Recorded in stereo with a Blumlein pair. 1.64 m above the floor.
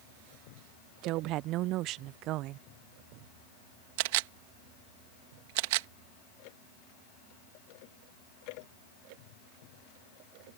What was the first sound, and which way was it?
A woman speaking, 40° right.